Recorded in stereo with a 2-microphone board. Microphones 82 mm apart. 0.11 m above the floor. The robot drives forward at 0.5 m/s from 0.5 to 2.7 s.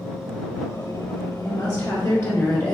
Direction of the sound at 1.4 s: 25° left (ahead or behind).